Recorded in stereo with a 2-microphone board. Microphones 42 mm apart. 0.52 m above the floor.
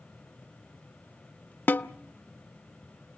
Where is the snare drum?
60° left (ahead or behind), 0.6 m.